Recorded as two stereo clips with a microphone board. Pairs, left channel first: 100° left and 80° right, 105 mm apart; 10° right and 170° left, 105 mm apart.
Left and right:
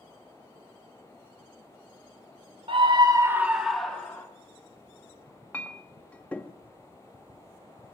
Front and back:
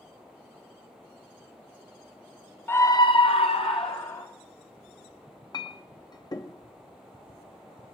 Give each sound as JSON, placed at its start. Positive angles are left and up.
{"t": 2.7, "sound": "a scream", "azimuth_deg": -80, "distance_m": 0.9}
{"t": 5.5, "sound": "a clink", "azimuth_deg": 25, "distance_m": 0.6}